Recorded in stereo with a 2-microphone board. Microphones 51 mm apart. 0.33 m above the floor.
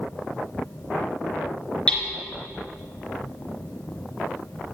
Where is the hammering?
20° left (ahead or behind), 3 m.